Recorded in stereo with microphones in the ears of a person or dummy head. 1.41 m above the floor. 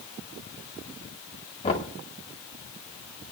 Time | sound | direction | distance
1.6 | knocking | 30° left (ahead or behind) | 2 m